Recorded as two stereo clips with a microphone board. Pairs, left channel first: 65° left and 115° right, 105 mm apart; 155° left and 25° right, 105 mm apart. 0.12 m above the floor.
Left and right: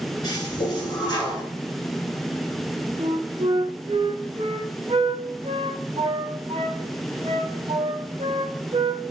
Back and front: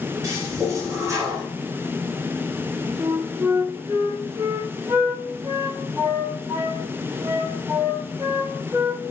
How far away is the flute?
About 0.6 m.